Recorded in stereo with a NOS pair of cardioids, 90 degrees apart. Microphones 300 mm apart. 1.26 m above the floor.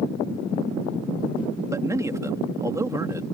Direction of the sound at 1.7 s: 10° right.